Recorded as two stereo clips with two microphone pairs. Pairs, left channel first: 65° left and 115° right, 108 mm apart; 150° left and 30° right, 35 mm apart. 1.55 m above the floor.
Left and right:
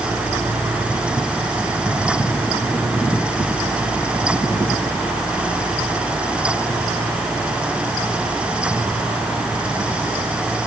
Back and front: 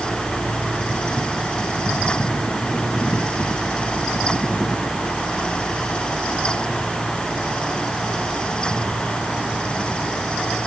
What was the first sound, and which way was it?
Only background noise.